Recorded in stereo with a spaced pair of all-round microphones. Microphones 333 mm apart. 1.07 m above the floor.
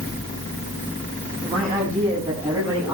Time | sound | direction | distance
1.4 | a man speaking | 15° right (ahead or behind) | 7 m